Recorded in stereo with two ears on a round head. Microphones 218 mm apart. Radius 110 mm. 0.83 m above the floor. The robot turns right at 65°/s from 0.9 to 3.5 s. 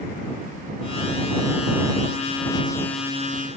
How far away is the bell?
No bell in this recording.